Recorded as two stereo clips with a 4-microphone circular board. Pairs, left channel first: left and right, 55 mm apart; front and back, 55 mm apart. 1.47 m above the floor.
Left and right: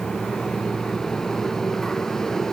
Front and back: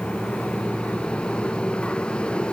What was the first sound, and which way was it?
Only background noise.